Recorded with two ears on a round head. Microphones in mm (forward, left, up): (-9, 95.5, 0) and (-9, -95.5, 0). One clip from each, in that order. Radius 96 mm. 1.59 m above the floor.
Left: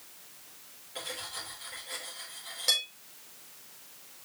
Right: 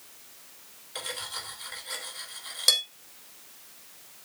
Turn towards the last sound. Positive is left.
turn(degrees=-35)  # may be behind; listen again after turning